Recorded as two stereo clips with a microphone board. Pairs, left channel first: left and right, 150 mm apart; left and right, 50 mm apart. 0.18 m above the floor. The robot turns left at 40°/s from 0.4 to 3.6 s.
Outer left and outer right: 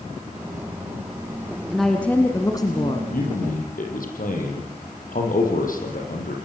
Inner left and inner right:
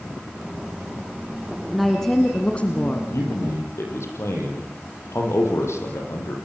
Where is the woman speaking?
Straight behind, 2 m; by 3.0 s 130° left, 2 m.